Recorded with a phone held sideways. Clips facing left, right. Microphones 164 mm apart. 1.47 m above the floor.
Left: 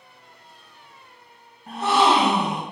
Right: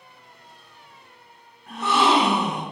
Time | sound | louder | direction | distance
1.7 | a gasp | left 2 dB | 30° left (ahead or behind) | 1.9 m